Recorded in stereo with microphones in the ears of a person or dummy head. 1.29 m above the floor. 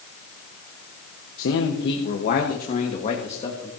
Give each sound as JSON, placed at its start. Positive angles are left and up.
{"t": 1.4, "sound": "a man speaking", "side_deg": 65, "distance_m": 1.1}